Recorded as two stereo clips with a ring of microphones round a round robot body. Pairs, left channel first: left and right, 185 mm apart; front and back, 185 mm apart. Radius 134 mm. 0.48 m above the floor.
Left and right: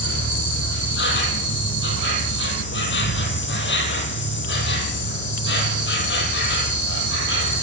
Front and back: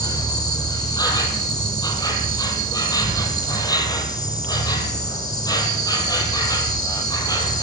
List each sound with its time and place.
0.0 s an insect: 70° left, 3 m